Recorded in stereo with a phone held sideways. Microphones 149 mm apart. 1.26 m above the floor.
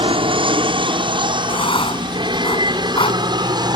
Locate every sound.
0.0 s an aircraft: 40° right (ahead or behind); by 3.8 s 30° right (ahead or behind)
1.5 s writing: 35° left (ahead or behind)